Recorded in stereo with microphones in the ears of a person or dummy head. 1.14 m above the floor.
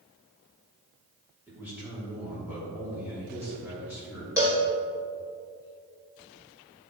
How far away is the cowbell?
About 0.9 m.